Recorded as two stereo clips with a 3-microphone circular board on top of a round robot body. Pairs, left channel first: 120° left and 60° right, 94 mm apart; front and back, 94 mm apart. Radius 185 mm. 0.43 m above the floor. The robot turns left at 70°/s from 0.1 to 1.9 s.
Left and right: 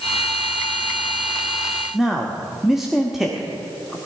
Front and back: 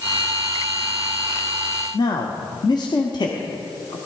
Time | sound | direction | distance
1.9 | a man speaking | 25° left | 1.3 m